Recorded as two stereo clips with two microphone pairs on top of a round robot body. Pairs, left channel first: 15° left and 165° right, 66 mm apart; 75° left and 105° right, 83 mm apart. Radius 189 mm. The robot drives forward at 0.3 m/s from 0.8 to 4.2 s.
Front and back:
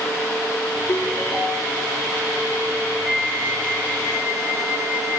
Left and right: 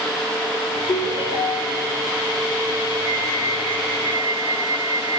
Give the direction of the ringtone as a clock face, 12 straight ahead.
9 o'clock.